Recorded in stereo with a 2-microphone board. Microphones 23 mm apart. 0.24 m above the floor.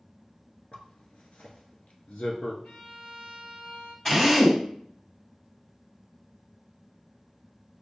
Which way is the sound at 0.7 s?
65° left (ahead or behind).